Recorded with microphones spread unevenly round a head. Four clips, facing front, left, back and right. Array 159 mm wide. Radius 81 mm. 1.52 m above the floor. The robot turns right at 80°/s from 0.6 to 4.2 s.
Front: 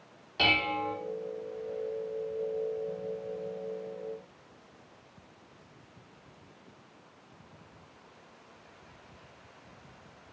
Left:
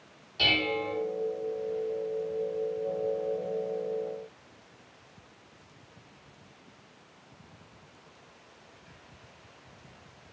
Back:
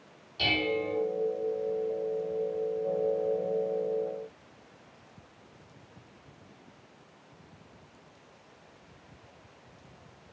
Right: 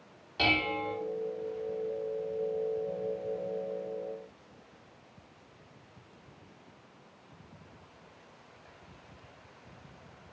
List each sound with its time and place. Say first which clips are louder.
0.4 s dishes clattering: left 1 dB, even; 15° right, 3 m; by 1.0 s 15° left, 3 m